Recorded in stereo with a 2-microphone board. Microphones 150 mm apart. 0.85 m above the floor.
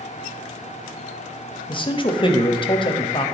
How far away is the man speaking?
About 0.7 m.